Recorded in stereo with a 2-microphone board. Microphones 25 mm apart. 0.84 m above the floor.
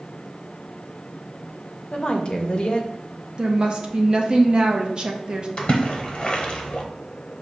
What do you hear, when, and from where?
1.9 s a woman speaking: 45° left (ahead or behind), 0.6 m
3.4 s a woman speaking: 35° right (ahead or behind), 0.6 m
5.6 s a splash: 45° left (ahead or behind), 0.7 m